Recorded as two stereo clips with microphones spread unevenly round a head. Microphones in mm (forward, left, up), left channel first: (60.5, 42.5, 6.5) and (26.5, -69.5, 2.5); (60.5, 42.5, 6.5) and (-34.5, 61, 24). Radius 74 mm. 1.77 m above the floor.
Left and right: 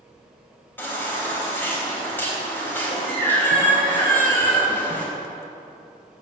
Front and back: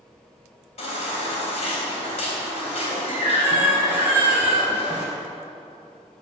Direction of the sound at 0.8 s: 5° left.